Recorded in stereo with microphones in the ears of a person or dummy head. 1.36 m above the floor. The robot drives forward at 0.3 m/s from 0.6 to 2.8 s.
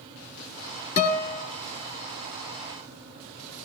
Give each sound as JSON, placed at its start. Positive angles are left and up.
{"t": 1.0, "sound": "a guitar", "side_deg": 50, "distance_m": 2.5}